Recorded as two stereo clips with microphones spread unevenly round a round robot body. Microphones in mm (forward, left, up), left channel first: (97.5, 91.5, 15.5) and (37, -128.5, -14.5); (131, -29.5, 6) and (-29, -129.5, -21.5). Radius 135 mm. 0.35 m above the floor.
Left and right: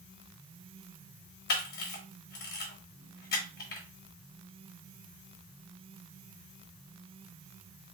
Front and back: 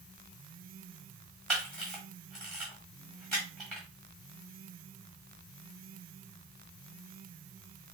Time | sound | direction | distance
1.5 | a camera shutter | 125° left | 1.2 m